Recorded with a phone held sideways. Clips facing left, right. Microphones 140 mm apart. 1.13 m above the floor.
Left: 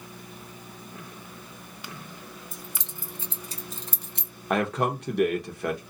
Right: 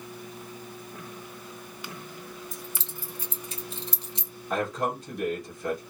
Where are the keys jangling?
10° left (ahead or behind), 1.2 m; by 4.3 s 60° left (ahead or behind), 0.9 m.